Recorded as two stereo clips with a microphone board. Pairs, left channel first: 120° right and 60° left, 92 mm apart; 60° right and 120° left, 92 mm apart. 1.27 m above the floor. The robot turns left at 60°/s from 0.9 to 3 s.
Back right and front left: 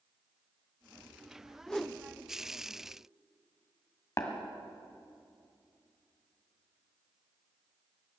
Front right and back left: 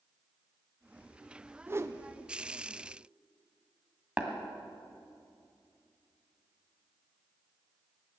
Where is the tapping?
165° right, 1.8 m.